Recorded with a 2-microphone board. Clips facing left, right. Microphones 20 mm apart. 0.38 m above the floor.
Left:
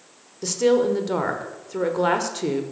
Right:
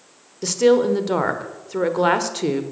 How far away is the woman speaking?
About 1.0 m.